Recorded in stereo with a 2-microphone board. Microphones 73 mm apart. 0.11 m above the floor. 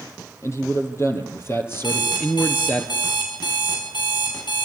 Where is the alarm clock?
85° left, 7 m.